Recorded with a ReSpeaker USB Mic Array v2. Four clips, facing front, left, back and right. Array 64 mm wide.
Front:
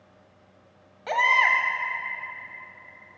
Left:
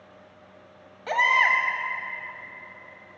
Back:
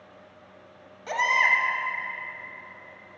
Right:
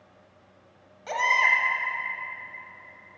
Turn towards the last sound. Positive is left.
turn(degrees=45)